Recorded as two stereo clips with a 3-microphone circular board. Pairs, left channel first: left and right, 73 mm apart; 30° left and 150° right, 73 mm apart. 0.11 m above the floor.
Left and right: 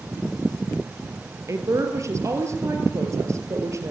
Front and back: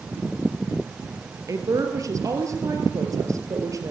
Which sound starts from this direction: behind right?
A woman speaking, at 1.5 s.